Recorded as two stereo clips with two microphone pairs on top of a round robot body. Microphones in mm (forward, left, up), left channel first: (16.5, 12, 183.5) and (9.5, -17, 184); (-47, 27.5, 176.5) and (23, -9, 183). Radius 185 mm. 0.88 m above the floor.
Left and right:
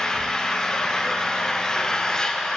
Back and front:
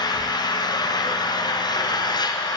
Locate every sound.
0.0 s an engine running: 140° left, 0.9 m